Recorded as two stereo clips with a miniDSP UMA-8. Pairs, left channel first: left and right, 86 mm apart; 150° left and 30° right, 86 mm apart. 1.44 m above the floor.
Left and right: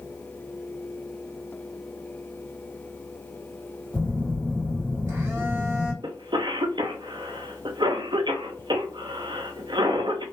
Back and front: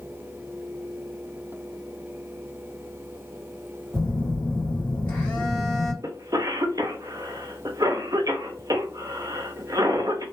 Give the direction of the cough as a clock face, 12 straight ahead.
2 o'clock.